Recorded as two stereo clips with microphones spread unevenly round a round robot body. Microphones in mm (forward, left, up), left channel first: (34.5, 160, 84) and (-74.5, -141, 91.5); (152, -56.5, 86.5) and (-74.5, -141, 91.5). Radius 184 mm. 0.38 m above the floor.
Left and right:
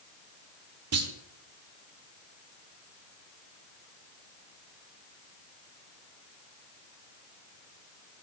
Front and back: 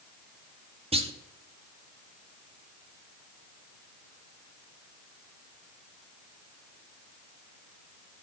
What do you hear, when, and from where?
0.9 s a clunk: 100° right, 1.4 m